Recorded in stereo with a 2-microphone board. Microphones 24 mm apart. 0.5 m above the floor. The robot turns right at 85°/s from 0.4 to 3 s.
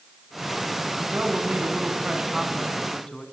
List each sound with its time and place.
1.0 s a man speaking: 130° right, 4.5 m; by 3.2 s 40° left, 4.5 m